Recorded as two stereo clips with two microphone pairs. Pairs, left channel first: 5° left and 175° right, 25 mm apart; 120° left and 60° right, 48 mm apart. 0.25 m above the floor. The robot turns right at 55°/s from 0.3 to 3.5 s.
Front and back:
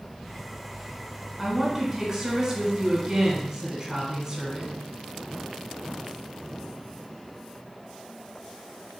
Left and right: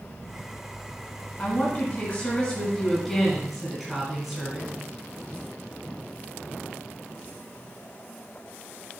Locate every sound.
1.4 s a woman speaking: 95° left, 1.4 m; by 4.7 s 145° right, 1.4 m